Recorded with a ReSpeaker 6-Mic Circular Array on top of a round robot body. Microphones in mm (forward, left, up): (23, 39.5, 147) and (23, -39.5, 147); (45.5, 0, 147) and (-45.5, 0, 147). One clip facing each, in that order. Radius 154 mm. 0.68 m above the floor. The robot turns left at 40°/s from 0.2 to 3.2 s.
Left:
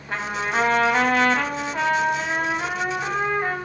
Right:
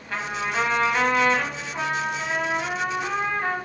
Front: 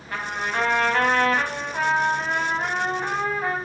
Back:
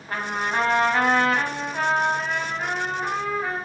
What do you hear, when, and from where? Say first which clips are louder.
0.1 s a trumpet: left 2 dB, back 2 dB; 135° left, 1.2 m; by 3.6 s 15° left, 1.2 m